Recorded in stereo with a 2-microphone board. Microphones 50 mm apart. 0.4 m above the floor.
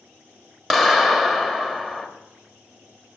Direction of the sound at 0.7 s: 5° right (ahead or behind).